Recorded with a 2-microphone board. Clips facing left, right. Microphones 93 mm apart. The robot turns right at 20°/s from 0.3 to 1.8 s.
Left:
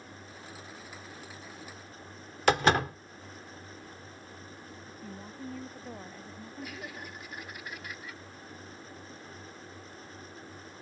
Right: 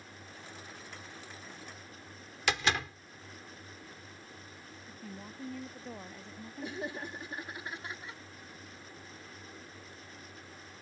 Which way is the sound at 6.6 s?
25° right (ahead or behind).